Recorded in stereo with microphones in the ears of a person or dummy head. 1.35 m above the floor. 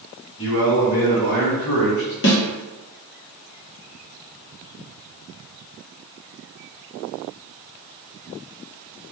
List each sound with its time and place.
0.4 s a man speaking: 60° left (ahead or behind), 1.4 m; by 2.1 s 55° left (ahead or behind), 0.6 m
2.2 s a snare drum: 50° left (ahead or behind), 1.1 m